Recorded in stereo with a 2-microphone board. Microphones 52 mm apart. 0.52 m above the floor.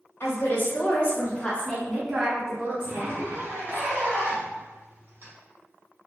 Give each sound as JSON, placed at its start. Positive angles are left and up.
{"t": 0.2, "sound": "a woman speaking", "side_deg": 50, "distance_m": 1.2}
{"t": 2.8, "sound": "a zipper", "side_deg": -45, "distance_m": 1.1}